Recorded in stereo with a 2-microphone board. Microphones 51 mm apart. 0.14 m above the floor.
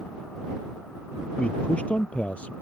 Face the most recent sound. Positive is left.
turn(degrees=25)  # may be behind; listen again after turning